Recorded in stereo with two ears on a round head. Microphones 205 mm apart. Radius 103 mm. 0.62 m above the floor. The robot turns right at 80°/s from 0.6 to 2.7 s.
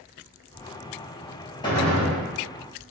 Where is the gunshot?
155° left, 0.8 m; by 2.2 s 160° right, 0.8 m.